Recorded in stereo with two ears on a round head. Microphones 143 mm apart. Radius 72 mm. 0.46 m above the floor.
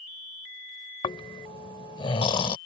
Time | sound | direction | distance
1.0 | snoring | 30° left (ahead or behind) | ?